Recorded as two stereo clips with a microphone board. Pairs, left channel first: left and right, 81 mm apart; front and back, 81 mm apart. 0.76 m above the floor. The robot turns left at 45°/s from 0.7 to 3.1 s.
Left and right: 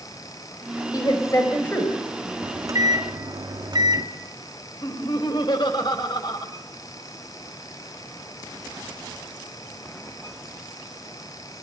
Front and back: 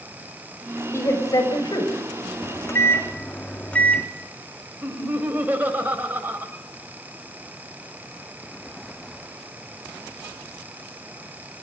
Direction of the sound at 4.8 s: 115° left.